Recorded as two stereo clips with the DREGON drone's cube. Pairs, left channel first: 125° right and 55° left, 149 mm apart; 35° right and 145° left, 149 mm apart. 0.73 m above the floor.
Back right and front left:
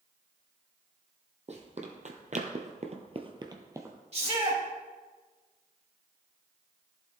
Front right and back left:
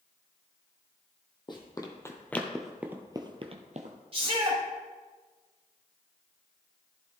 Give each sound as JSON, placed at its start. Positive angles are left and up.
{"t": 1.5, "sound": "running footsteps", "azimuth_deg": 20, "distance_m": 1.7}
{"t": 4.1, "sound": "a shout", "azimuth_deg": 95, "distance_m": 4.0}